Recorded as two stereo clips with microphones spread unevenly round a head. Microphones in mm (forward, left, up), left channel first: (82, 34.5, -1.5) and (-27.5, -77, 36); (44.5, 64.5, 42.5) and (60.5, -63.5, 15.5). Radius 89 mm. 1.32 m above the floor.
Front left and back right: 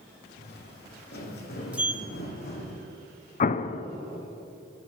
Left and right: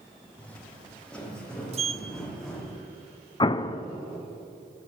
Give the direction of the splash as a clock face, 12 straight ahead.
No splash in this recording.